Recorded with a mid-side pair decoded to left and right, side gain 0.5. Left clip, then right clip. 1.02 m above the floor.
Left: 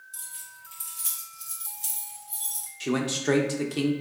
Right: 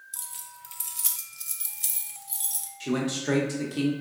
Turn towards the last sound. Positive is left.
turn(degrees=30)